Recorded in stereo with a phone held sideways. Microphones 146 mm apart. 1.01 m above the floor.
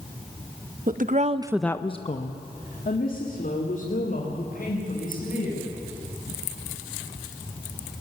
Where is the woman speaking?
70° right (ahead or behind), 1.1 m; by 5.7 s 75° left (ahead or behind), 6 m.